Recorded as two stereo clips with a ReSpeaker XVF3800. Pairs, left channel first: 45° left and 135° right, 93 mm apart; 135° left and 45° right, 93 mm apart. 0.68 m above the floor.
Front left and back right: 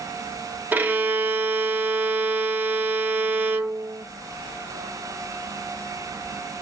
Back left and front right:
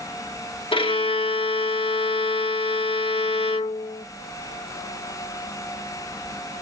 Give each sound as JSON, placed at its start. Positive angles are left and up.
{"t": 0.7, "sound": "a violin", "azimuth_deg": 155, "distance_m": 0.8}